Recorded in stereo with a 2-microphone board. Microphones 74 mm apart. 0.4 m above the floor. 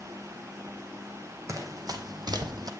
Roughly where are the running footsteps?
Right.